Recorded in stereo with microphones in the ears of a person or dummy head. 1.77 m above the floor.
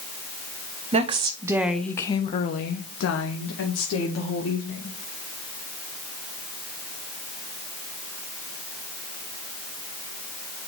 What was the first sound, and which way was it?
A woman speaking, 35° right (ahead or behind).